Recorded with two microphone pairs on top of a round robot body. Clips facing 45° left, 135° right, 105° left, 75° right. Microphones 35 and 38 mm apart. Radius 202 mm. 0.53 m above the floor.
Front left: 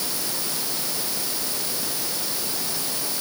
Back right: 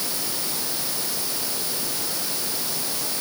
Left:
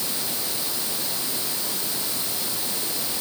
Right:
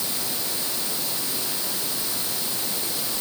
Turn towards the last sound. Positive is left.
No sound to turn to.